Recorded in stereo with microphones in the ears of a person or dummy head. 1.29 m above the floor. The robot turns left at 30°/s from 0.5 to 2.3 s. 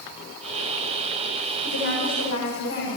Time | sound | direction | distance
1.6 | a woman speaking | 60° left (ahead or behind) | 8 m